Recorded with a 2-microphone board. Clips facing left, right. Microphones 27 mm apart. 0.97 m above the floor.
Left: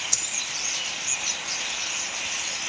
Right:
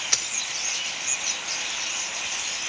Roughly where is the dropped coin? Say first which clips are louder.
Right 3 dB; right.